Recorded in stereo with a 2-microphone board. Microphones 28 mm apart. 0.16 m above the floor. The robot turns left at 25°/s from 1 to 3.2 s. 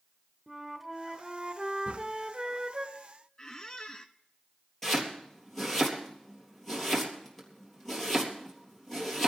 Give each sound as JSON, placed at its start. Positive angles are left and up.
{"t": 0.5, "sound": "a flute", "side_deg": -10, "distance_m": 1.0}
{"t": 1.9, "sound": "a drawer", "side_deg": -80, "distance_m": 3.5}
{"t": 3.4, "sound": "a squeak", "side_deg": 25, "distance_m": 0.7}
{"t": 4.8, "sound": "chopping", "side_deg": 10, "distance_m": 3.5}